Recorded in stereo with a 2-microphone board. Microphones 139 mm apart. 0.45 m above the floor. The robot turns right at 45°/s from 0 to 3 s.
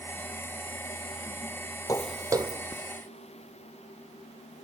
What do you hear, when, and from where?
1.9 s footsteps: 25° left (ahead or behind), 0.5 m; by 4.7 s 30° right (ahead or behind), 4 m